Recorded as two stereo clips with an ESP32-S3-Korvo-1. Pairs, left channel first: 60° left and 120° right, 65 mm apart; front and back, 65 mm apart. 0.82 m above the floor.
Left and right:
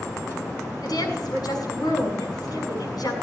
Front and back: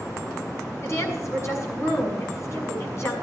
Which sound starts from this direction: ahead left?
A woman speaking, at 0.8 s.